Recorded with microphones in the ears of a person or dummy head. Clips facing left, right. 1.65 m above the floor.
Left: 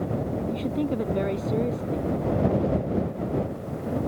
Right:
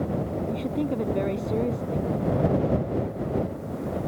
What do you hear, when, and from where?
0.5 s a woman speaking: 5° left (ahead or behind)